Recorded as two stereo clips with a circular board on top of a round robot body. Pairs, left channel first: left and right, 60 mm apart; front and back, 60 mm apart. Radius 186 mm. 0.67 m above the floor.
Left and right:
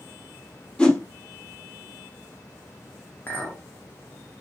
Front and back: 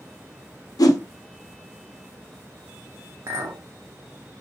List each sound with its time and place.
0.8 s a whoosh: 15° left, 0.8 m
3.3 s a clink: 150° left, 0.8 m